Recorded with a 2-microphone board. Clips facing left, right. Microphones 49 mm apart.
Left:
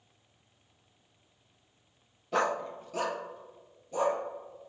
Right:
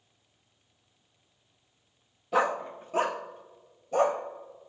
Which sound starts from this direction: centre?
A dog barking, at 2.3 s.